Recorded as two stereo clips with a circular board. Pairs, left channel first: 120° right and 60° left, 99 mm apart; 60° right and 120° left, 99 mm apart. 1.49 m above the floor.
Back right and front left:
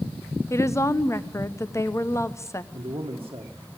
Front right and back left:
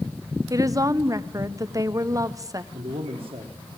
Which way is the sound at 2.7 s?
105° left.